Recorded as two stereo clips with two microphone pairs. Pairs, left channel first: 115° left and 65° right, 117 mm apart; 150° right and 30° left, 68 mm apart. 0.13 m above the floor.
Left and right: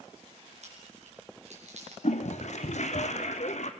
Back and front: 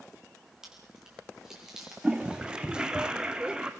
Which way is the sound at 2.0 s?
110° left.